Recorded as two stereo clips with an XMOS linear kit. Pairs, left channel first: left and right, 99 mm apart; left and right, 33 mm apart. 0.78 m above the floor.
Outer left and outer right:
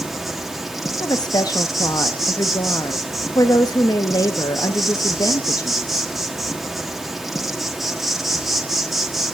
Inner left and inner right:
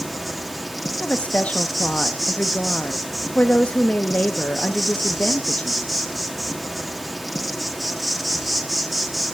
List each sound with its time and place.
0.0 s an insect: centre (ahead or behind), 1.3 m
1.0 s a woman speaking: 40° left (ahead or behind), 0.8 m